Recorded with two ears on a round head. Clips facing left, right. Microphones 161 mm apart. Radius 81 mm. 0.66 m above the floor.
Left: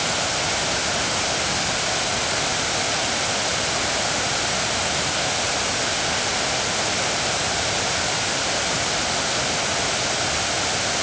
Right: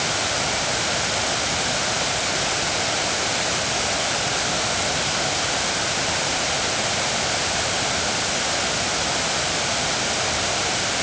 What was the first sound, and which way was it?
Only background noise.